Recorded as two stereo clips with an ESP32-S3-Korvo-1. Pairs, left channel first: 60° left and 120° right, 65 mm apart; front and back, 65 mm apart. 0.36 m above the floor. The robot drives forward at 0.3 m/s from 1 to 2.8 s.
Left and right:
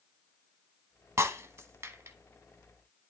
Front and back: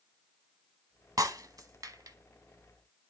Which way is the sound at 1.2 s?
160° right.